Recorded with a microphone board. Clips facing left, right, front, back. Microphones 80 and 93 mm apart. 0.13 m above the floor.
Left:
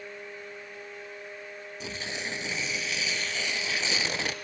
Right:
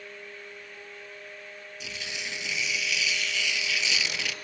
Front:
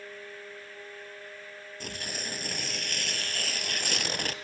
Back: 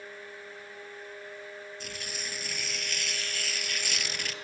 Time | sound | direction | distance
1.8 | tearing paper | 40° left | 0.7 m